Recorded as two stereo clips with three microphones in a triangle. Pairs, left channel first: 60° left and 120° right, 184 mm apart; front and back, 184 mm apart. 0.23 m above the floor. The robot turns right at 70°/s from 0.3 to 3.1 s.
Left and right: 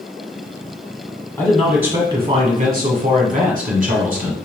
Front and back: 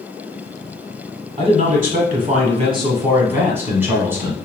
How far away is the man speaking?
About 1.3 m.